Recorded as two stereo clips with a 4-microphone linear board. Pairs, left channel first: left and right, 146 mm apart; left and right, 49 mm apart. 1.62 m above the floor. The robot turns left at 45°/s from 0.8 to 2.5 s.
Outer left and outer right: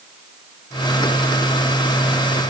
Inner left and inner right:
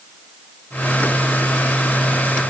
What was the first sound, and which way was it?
Only background noise.